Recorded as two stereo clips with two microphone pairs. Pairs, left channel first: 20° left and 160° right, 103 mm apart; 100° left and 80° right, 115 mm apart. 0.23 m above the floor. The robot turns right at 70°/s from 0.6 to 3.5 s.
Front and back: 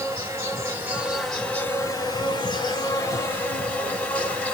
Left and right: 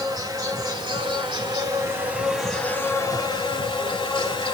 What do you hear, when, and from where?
0.0 s an insect: 115° right, 1.2 m; by 4.5 s 90° left, 1.2 m